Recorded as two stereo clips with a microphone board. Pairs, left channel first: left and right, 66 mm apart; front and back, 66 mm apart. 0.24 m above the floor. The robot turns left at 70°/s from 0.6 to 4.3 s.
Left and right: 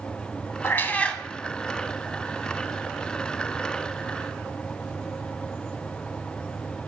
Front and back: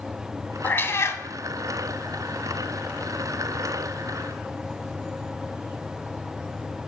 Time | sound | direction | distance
0.6 | a cat meowing | 50° left | 0.7 m